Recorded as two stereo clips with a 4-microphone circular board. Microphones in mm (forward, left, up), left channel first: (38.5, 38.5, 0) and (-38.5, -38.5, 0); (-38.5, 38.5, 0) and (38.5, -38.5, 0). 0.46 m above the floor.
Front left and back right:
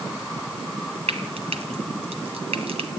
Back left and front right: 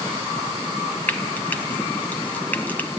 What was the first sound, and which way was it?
Frying, 150° right.